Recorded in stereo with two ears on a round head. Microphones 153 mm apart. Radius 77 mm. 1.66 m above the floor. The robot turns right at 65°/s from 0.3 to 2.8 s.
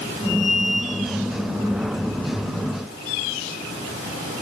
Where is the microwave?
I don't hear a microwave.